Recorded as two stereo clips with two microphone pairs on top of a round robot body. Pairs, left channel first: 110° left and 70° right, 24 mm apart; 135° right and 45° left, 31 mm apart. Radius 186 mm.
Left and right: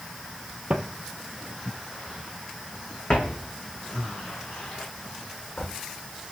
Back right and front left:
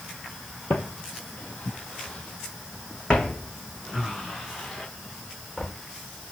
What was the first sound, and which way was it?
Footsteps, 115° right.